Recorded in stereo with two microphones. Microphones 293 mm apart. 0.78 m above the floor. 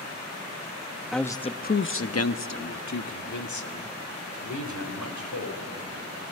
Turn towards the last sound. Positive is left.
turn(degrees=75)  # may be behind; listen again after turning